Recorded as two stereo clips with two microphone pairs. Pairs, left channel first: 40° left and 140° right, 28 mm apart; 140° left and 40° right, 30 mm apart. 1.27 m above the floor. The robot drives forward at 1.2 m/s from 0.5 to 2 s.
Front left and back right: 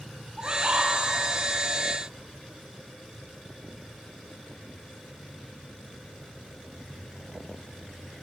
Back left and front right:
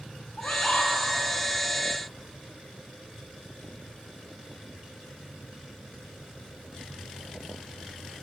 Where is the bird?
160° left, 1.8 m; by 0.9 s 165° left, 2.5 m.